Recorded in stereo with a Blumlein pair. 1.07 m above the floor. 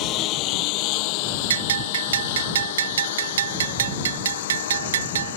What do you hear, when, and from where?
0.0 s a lawn mower: 35° left; by 5.4 s 60° left
1.5 s a bell: 65° right